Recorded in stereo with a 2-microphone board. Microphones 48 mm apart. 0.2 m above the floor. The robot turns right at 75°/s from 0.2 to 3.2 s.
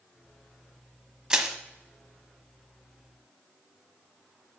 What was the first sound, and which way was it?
Crushing, 15° right (ahead or behind).